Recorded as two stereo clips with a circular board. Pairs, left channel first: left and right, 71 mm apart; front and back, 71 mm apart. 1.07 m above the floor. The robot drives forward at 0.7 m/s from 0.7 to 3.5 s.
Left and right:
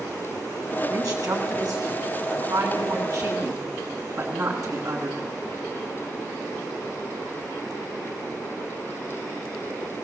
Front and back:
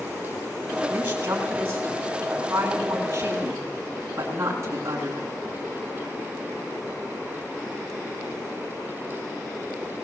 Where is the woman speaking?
120° right, 8 m; by 5.3 s 130° right, 9 m.